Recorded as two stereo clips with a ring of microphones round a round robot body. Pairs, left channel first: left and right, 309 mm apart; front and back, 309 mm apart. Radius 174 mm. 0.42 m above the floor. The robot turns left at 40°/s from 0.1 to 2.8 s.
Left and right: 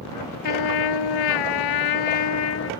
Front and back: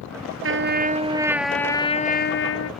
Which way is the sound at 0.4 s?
130° left.